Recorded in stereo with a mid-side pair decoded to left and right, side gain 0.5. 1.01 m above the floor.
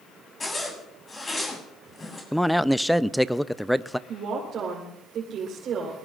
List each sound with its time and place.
0.4 s a zipper: 25° left, 8 m
2.3 s a man speaking: straight ahead, 0.6 m
4.1 s a woman speaking: 60° right, 4 m